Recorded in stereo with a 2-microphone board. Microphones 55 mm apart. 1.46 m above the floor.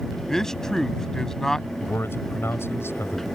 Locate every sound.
0.3 s a man speaking: 10° left (ahead or behind)
1.8 s a man speaking: 50° left (ahead or behind)